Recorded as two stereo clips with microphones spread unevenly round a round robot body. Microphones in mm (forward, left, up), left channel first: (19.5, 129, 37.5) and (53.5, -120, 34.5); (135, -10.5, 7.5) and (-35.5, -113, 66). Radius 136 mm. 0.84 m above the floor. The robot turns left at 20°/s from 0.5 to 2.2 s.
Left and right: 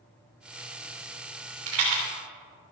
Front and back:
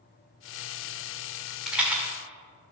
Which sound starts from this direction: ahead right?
A rattle, at 1.7 s.